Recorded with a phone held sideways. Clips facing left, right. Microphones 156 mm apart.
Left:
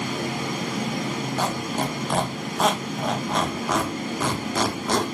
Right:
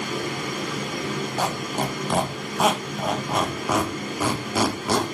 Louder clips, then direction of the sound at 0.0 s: Left 1 dB; 65° left (ahead or behind).